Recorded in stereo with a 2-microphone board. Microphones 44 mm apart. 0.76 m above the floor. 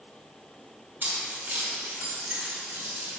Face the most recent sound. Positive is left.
turn(degrees=-80)